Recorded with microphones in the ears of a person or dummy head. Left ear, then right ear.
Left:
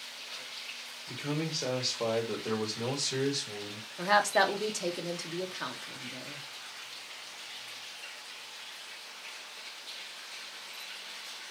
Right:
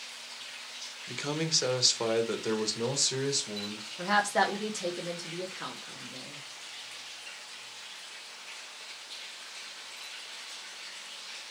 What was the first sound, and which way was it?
A man speaking, 35° right (ahead or behind).